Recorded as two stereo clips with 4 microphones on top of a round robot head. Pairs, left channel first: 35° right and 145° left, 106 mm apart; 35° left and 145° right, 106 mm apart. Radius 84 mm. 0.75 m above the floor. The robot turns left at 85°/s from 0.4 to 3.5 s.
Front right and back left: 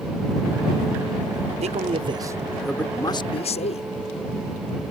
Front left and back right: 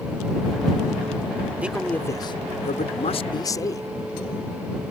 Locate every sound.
1.6 s a man speaking: 140° left; by 3.9 s 20° right